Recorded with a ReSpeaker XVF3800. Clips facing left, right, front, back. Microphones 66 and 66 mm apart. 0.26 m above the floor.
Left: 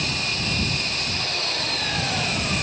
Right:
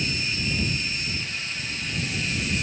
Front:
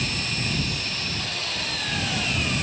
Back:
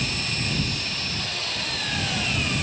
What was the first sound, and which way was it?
An engine running, 90° left.